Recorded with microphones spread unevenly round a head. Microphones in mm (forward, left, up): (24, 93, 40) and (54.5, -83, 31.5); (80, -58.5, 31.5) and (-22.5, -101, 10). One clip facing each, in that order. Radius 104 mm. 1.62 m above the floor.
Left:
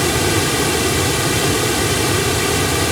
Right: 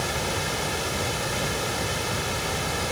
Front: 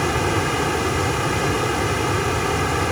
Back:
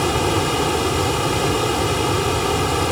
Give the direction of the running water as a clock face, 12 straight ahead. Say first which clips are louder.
Left 12 dB, back 2 dB; 8 o'clock.